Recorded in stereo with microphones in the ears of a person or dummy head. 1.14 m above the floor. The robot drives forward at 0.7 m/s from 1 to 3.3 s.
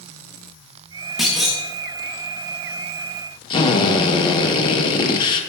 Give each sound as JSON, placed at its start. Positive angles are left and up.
{"t": 1.2, "sound": "a clunk", "side_deg": 0, "distance_m": 0.9}
{"t": 3.5, "sound": "a drill", "side_deg": 25, "distance_m": 0.8}